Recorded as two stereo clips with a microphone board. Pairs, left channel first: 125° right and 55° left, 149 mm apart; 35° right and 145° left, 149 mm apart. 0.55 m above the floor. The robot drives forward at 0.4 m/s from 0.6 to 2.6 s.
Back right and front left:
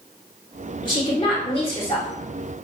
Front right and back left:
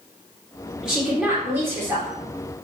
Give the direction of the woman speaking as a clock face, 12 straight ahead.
4 o'clock.